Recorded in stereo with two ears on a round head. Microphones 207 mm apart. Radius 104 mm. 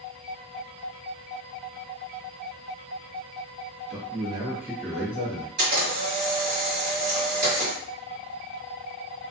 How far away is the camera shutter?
About 1.5 m.